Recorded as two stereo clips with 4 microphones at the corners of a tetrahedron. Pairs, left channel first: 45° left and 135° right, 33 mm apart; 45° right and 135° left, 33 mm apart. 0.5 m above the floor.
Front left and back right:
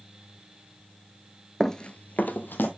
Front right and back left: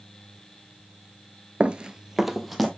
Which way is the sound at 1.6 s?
120° left.